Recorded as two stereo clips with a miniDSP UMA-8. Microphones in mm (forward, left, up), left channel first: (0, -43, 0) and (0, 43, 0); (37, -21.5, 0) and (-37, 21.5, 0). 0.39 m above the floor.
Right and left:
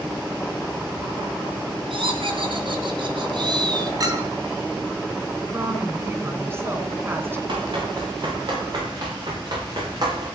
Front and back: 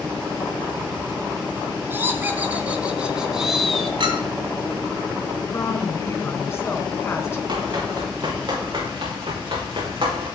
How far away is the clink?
About 2 m.